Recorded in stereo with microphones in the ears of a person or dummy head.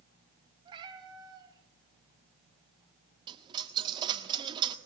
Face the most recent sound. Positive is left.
turn(degrees=-25)  # may be behind; listen again after turning